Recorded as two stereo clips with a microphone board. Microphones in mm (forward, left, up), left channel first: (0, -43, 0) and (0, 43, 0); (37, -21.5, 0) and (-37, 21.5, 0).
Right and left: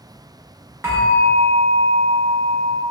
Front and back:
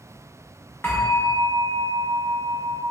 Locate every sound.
0.8 s a bell: 35° left, 1.0 m